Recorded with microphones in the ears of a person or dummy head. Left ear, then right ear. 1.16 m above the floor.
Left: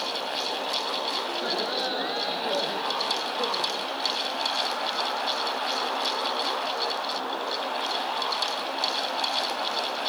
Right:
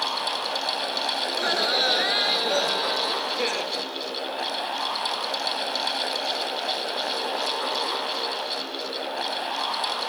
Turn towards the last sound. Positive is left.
turn(degrees=-75)  # may be behind; listen again after turning